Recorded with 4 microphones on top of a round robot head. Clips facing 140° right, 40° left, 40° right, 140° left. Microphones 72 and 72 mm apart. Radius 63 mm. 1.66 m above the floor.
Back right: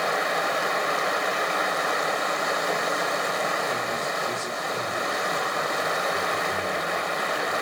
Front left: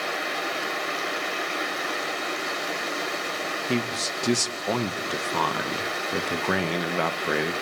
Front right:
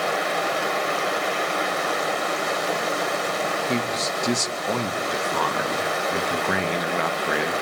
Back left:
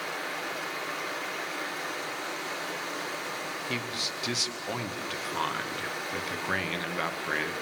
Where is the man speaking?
25° left, 1.1 m.